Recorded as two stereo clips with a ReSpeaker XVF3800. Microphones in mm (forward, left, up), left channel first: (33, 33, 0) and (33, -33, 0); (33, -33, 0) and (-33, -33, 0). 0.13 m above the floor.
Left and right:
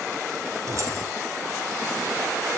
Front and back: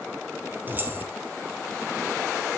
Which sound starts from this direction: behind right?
Keys jangling, at 0.7 s.